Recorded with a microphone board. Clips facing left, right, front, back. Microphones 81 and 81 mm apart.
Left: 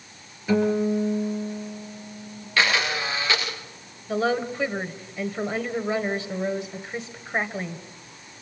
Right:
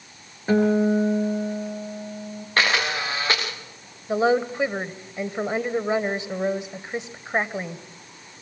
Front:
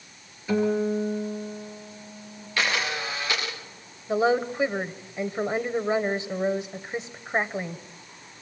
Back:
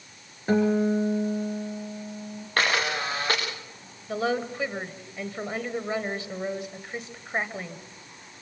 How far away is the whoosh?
I don't hear a whoosh.